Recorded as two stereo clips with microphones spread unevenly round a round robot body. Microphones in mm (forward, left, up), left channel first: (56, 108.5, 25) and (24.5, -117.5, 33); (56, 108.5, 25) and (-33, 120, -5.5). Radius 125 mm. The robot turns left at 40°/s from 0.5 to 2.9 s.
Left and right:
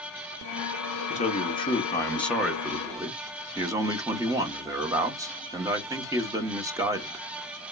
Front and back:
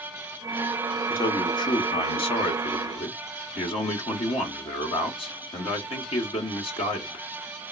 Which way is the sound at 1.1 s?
45° left.